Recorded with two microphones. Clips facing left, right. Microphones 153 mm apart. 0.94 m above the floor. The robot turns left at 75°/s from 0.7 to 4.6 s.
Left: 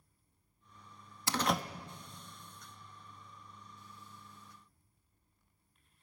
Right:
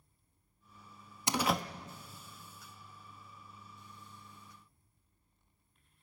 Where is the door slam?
20° right (ahead or behind), 0.7 m; by 1.6 s 10° left (ahead or behind), 0.7 m.